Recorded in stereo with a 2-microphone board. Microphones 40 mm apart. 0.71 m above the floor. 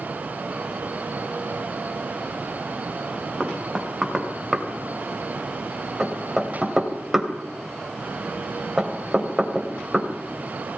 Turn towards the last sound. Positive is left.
turn(degrees=-5)  # may be behind; listen again after turning